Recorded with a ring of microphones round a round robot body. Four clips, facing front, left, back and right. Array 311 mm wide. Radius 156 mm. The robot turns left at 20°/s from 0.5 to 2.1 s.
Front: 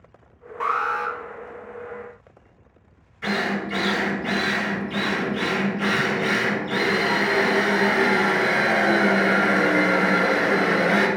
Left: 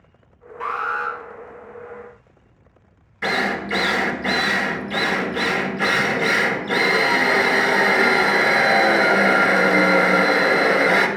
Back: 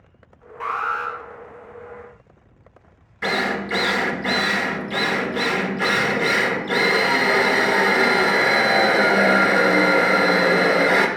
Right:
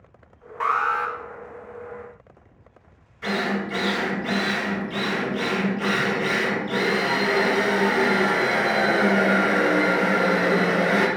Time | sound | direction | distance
0.6 | an alarm | 65° right | 1.4 m
3.2 | a drill | 135° left | 1.6 m